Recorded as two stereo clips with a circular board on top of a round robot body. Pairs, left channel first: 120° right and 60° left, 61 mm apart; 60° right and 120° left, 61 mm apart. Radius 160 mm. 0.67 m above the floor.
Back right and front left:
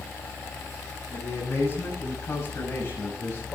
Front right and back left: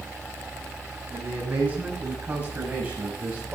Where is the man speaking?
175° right, 8 m.